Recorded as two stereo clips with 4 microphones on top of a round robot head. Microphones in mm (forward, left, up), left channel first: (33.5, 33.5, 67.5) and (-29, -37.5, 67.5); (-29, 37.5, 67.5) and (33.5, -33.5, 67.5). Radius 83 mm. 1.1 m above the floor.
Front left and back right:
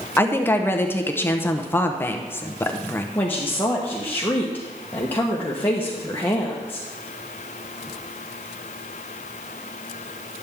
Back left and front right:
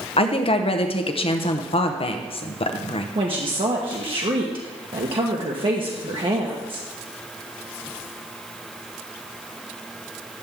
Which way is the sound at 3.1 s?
20° right.